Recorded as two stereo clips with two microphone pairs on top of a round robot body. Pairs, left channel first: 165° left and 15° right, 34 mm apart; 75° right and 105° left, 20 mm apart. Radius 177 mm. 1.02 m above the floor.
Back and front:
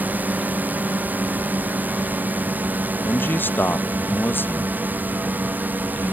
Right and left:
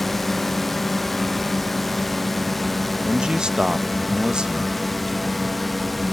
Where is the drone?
5° right; by 6.1 s 5° left.